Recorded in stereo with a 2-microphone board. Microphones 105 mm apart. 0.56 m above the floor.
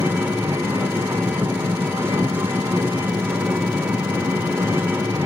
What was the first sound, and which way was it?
An engine running, 20° right (ahead or behind).